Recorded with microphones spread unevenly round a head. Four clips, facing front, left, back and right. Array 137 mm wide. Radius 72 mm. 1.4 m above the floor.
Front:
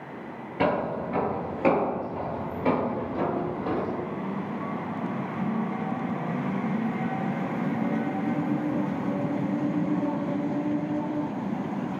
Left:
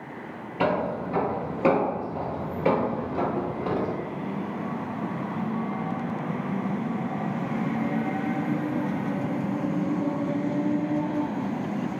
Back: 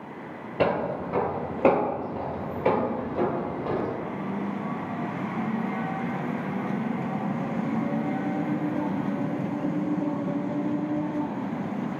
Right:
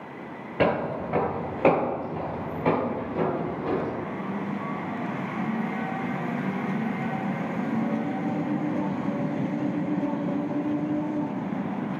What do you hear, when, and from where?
0.6 s footsteps: 125° right, 1.5 m; by 4.0 s 110° left, 1.8 m